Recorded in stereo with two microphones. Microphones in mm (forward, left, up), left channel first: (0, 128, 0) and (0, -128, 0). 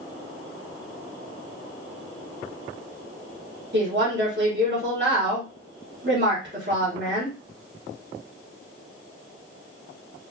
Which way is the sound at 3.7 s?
45° right (ahead or behind).